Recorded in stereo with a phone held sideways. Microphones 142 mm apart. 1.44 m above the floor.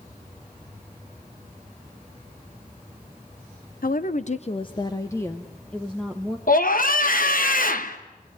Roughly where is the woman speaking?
Left.